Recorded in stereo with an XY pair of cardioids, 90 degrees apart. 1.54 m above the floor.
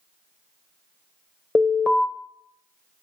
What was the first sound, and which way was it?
An alarm, 30° left.